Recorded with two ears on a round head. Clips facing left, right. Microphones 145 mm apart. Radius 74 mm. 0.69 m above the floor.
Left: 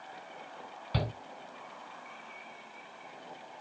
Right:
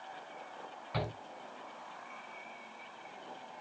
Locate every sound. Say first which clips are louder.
0.9 s a shout: left 2 dB; 35° left (ahead or behind), 3.5 m